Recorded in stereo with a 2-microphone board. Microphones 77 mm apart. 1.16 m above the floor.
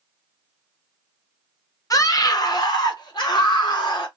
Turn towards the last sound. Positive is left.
turn(degrees=75)  # may be behind; listen again after turning